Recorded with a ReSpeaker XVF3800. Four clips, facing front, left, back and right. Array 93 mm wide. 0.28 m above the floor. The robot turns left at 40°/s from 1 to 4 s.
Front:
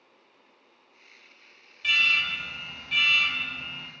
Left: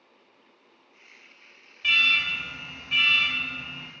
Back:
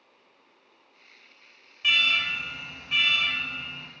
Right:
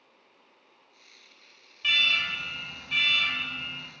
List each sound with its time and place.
1.8 s an alarm: 175° right, 0.7 m; by 3.9 s 105° left, 0.7 m